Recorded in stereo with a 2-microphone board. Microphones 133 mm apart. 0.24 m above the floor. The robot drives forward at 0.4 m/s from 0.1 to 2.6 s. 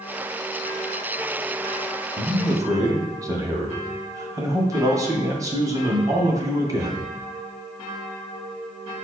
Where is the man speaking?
25° right (ahead or behind), 1.6 m.